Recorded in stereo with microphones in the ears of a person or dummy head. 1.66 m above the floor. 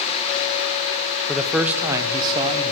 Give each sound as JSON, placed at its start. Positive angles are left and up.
{"t": 1.3, "sound": "a man speaking", "side_deg": 10, "distance_m": 0.8}